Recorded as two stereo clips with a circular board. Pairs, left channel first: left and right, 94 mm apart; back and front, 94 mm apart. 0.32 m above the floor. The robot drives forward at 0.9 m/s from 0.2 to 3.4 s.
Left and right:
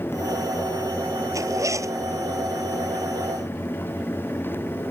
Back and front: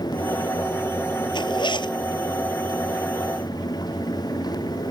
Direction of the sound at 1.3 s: 145° right.